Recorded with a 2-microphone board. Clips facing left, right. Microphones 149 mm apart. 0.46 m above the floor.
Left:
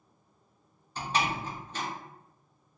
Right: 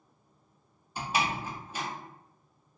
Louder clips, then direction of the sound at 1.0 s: Even; 10° right (ahead or behind).